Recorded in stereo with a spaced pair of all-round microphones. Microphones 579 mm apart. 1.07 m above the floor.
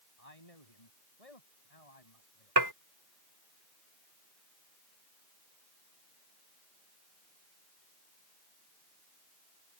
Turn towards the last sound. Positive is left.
turn(degrees=-40)  # may be behind; listen again after turning